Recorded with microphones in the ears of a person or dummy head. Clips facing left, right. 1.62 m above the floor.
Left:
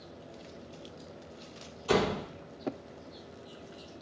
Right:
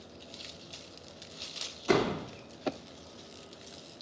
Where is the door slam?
65° right (ahead or behind), 2 m.